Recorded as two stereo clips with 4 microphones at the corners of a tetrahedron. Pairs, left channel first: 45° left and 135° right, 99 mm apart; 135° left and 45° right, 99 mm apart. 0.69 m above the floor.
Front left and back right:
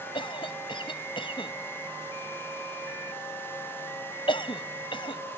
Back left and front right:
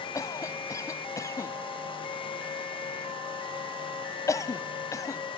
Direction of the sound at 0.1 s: 80° left.